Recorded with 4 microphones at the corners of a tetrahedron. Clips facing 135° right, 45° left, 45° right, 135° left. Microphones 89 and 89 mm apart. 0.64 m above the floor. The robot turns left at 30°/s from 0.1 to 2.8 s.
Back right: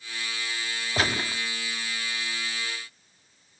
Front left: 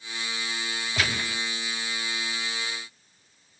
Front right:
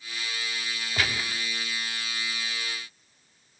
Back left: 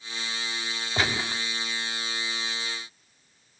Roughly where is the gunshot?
Behind.